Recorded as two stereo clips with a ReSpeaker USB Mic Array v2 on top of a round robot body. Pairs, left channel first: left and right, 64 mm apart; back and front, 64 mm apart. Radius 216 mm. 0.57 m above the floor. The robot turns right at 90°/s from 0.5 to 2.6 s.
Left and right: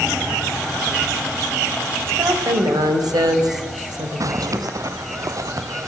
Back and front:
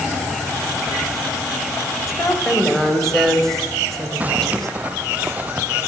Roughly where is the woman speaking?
Behind right.